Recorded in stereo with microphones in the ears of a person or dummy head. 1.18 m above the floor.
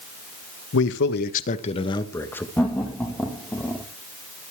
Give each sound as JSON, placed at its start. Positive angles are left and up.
{"t": 0.7, "sound": "a man speaking", "side_deg": 70, "distance_m": 1.5}
{"t": 2.6, "sound": "laughter", "side_deg": 5, "distance_m": 1.6}